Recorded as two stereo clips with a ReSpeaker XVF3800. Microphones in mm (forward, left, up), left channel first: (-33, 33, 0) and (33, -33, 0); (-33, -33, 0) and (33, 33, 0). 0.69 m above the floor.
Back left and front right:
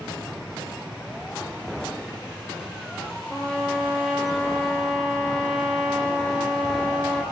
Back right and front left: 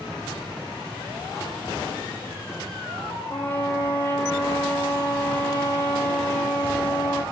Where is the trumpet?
155° right, 1.2 m.